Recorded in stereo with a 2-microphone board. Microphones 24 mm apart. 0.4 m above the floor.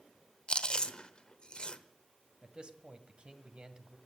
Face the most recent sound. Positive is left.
turn(degrees=-40)  # may be behind; listen again after turning